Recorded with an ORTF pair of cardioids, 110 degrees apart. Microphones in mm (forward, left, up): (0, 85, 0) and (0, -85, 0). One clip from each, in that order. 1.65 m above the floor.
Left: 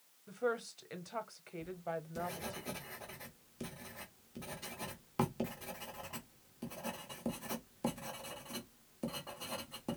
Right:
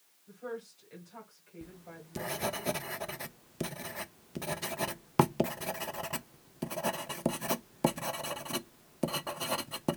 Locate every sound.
0.3 s a woman speaking: 60° left, 1.1 m
1.6 s writing: 45° right, 0.5 m